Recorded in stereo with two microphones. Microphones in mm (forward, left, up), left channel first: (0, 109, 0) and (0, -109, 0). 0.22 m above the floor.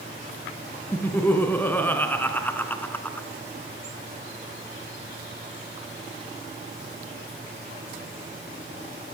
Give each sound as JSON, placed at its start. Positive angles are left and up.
{"t": 0.9, "sound": "laughter", "side_deg": 10, "distance_m": 2.5}